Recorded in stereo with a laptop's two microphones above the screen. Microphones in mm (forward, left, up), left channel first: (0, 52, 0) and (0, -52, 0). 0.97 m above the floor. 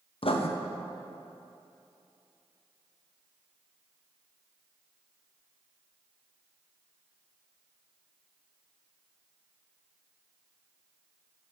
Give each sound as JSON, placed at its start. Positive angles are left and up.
{"t": 0.2, "sound": "writing", "side_deg": 60, "distance_m": 0.6}